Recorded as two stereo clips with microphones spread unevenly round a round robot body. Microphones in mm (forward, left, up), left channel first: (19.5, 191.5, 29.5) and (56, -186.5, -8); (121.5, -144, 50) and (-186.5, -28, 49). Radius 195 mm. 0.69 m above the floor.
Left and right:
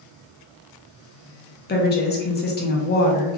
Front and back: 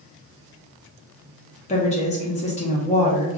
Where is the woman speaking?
35° left, 0.7 m.